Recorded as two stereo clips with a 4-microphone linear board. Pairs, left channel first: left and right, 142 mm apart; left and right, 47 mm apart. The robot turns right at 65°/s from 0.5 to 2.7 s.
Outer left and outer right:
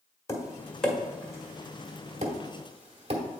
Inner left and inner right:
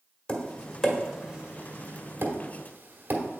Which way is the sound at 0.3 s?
20° left (ahead or behind).